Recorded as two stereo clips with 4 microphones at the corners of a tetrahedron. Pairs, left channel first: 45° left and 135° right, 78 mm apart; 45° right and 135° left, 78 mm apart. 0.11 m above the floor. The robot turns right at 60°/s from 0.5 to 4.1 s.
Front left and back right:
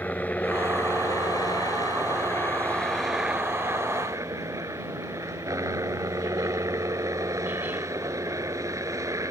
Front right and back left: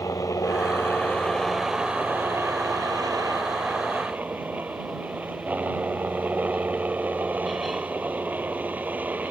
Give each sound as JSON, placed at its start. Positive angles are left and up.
{"t": 0.0, "sound": "a helicopter", "azimuth_deg": -20}